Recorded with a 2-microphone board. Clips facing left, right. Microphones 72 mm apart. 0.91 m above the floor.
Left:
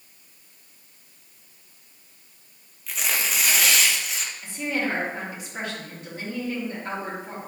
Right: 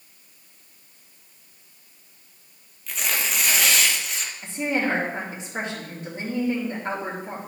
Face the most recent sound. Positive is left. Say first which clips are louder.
# right 3 dB
turn(degrees=-30)  # may be behind; listen again after turning